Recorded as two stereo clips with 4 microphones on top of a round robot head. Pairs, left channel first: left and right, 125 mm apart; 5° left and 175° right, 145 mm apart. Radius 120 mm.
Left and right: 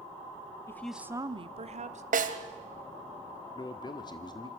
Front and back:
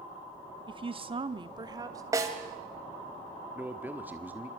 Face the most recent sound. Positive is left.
turn(degrees=115)